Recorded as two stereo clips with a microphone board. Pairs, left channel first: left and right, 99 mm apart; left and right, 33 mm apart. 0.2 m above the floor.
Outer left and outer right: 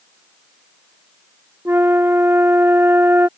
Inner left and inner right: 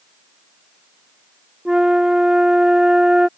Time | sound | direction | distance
1.6 | a flute | 20° right (ahead or behind) | ?